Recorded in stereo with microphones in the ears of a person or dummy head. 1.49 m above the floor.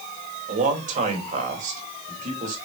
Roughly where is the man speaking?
Right.